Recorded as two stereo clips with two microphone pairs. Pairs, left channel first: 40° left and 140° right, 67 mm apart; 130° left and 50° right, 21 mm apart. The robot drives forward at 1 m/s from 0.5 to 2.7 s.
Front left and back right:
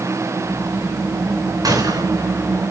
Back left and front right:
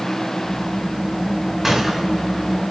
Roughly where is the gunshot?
Behind right.